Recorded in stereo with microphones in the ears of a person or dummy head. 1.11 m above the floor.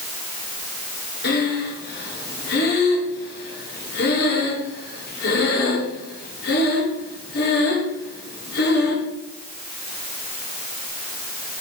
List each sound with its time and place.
1.2 s breathing: 65° left (ahead or behind), 6.5 m